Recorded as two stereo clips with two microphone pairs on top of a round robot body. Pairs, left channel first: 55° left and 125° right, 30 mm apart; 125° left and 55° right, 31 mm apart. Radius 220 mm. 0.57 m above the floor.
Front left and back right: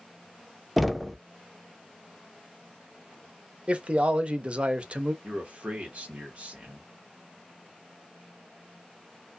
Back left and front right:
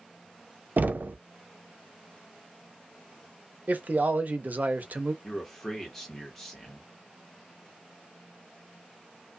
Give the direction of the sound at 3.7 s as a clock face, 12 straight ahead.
2 o'clock.